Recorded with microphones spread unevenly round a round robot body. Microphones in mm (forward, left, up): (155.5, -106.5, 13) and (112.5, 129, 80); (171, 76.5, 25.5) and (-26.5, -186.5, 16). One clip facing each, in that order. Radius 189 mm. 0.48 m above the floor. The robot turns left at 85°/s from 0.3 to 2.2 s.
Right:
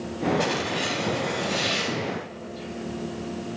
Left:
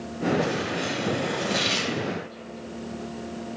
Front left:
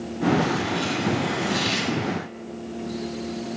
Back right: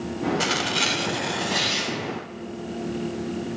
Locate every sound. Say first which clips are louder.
0.4 s tearing paper: even, front left 3 dB; 110° right, 0.8 m; by 1.9 s 120° left, 0.8 m